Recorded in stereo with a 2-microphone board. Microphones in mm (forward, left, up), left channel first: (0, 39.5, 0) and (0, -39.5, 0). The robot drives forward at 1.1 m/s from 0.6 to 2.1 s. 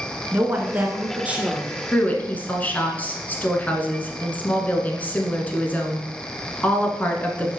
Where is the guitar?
I don't hear a guitar.